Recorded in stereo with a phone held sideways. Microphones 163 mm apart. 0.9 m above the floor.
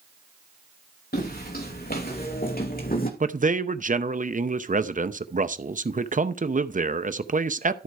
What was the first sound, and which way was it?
Footsteps, 70° left (ahead or behind).